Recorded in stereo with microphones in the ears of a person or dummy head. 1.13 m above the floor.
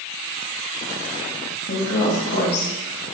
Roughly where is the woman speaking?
Left.